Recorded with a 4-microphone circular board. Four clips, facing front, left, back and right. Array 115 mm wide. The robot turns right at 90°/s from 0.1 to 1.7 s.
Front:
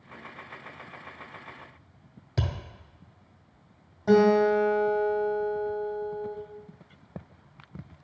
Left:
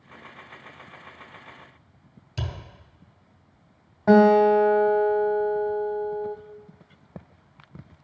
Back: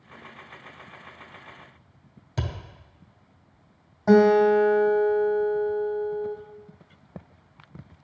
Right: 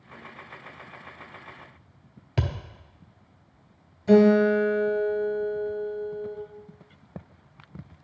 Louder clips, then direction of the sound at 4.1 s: Left 2 dB, back 3 dB; 110° left.